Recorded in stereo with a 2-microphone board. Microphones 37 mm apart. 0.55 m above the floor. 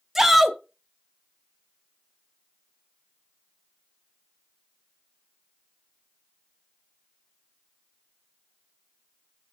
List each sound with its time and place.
0.1 s a shout: 5° right (ahead or behind), 0.7 m